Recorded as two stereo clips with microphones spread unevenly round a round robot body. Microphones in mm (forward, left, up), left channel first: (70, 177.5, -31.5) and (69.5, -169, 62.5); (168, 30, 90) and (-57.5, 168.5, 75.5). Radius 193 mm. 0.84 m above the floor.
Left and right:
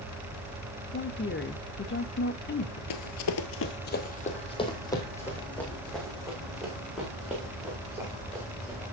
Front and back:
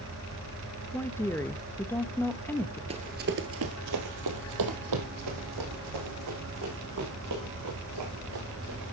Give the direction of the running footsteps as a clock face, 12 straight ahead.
9 o'clock.